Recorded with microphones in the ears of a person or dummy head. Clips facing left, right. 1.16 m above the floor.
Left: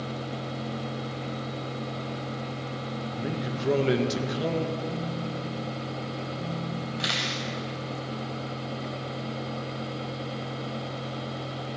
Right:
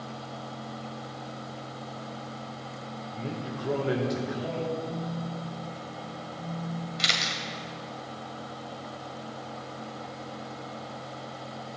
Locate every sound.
3.1 s a man speaking: 20° left (ahead or behind), 1.5 m; by 4.7 s 55° left (ahead or behind), 1.3 m
4.8 s a phone buzzing: 35° left (ahead or behind), 4 m
7.0 s a camera shutter: 30° right (ahead or behind), 1.6 m